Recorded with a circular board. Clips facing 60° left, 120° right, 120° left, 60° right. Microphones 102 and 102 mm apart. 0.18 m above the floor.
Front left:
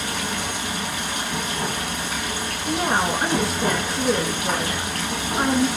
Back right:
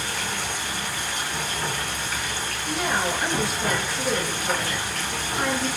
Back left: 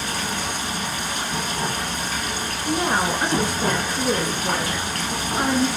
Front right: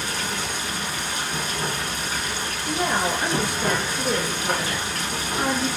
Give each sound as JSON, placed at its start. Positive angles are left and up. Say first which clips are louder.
{"t": 0.0, "sound": "running water", "louder": "front left 3 dB, back left 2 dB", "azimuth_deg": 85, "distance_m": 4.5}
{"t": 2.6, "sound": "a woman speaking", "louder": "front left 4 dB, back left 2 dB", "azimuth_deg": 95, "distance_m": 2.0}